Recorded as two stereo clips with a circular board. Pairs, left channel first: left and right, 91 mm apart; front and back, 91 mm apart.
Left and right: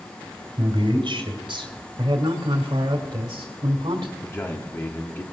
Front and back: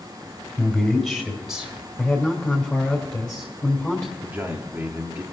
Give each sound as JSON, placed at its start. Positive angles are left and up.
{"t": 0.6, "sound": "a man speaking", "azimuth_deg": -90, "distance_m": 3.5}
{"t": 2.0, "sound": "a man speaking", "azimuth_deg": -75, "distance_m": 2.0}
{"t": 4.2, "sound": "a man speaking", "azimuth_deg": 125, "distance_m": 1.2}